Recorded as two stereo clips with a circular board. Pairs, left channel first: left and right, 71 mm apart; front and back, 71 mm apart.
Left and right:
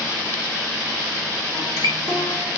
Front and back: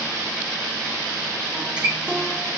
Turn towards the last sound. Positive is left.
turn(degrees=105)